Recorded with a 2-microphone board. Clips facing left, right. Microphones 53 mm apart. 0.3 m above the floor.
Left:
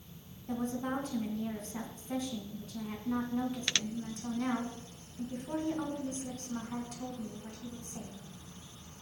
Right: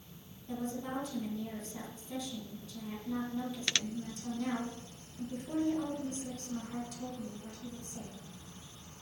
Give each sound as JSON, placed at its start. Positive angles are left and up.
{"t": 0.5, "sound": "a woman speaking", "side_deg": 45, "distance_m": 3.0}